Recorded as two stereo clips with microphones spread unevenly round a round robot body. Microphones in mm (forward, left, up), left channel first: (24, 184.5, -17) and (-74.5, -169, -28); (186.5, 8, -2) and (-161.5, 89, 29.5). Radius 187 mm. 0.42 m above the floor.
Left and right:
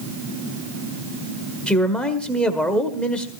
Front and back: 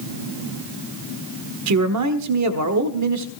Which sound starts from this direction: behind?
A man speaking, at 1.7 s.